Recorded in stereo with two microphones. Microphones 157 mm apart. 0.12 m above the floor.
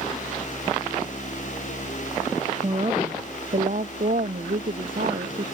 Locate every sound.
2.6 s a woman speaking: 35° right (ahead or behind); by 5.5 s 70° right (ahead or behind)